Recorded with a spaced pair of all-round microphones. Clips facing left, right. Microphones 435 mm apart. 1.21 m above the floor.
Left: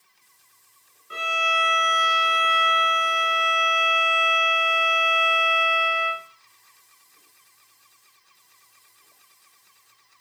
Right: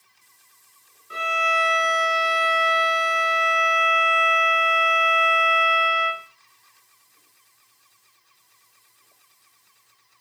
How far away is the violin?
About 1.5 m.